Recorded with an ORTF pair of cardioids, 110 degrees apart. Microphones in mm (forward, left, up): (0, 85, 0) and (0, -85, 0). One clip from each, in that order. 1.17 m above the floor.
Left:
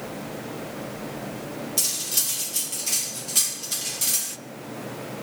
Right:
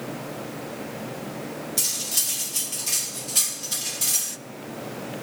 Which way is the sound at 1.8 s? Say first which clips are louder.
Even; 5° left.